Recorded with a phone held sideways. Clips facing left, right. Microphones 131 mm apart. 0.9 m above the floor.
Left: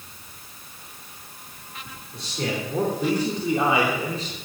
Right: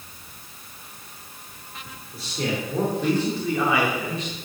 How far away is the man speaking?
About 3.5 m.